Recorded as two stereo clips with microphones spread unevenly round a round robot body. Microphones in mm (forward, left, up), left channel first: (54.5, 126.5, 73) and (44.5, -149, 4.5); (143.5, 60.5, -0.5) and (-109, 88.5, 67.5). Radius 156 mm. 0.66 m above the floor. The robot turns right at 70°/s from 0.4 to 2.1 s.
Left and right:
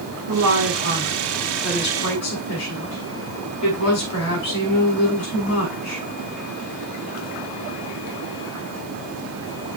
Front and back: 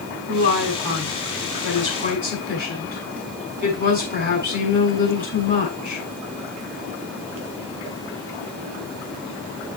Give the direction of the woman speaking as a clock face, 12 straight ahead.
2 o'clock.